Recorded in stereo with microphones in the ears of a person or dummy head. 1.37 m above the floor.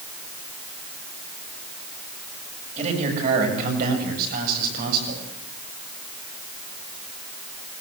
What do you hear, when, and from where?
2.8 s a man speaking: 35° right (ahead or behind), 7.5 m; by 5.2 s 55° right (ahead or behind), 8 m